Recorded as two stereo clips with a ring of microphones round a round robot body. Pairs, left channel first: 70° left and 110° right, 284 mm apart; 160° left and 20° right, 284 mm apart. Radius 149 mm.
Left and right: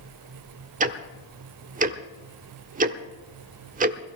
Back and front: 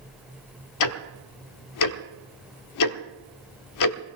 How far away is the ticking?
About 0.9 m.